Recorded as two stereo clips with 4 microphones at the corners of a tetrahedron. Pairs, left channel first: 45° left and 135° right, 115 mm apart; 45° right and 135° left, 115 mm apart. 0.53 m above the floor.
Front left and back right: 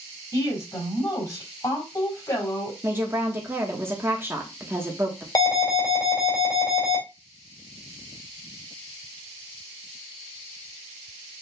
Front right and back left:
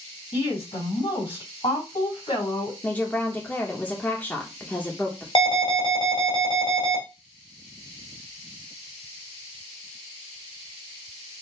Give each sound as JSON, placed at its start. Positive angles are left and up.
{"t": 0.3, "sound": "a woman speaking", "azimuth_deg": -15, "distance_m": 3.0}
{"t": 2.8, "sound": "a woman speaking", "azimuth_deg": -95, "distance_m": 1.1}
{"t": 5.3, "sound": "an alarm", "azimuth_deg": -10, "distance_m": 2.5}